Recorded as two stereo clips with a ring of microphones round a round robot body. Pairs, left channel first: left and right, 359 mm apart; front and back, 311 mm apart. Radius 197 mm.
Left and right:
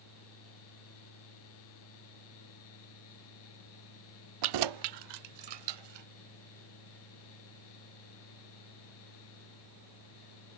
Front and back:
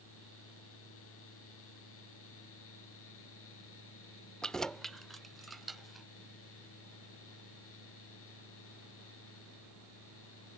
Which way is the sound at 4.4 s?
90° right.